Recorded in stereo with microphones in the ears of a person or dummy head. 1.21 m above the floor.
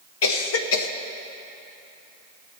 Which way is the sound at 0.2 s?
85° left.